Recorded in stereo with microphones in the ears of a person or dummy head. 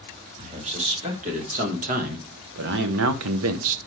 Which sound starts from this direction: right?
A man speaking, at 0.4 s.